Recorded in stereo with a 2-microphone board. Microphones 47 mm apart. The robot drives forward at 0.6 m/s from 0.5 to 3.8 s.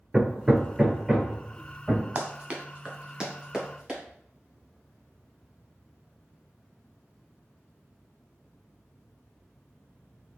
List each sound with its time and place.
0.1 s hammering: 15° right (ahead or behind), 0.9 m; by 2.0 s 10° right (ahead or behind), 1.7 m
2.1 s running footsteps: 35° right (ahead or behind), 1.0 m; by 4.0 s 10° right (ahead or behind), 3 m